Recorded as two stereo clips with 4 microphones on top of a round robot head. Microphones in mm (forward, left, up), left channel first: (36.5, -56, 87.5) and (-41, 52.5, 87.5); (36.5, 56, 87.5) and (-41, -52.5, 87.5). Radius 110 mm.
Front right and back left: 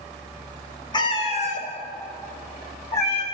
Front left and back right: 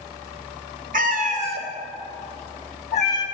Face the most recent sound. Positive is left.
turn(degrees=-5)